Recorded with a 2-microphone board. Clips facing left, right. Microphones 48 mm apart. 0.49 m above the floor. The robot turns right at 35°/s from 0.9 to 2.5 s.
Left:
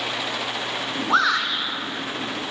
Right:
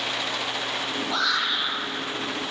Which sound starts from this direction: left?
A shout, at 1.1 s.